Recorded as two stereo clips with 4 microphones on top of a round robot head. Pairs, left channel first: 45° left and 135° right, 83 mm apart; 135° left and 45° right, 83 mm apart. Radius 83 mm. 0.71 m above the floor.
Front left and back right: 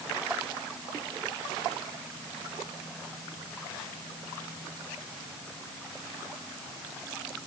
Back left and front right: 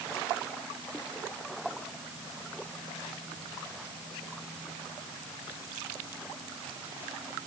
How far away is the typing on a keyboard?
I don't hear typing on a keyboard.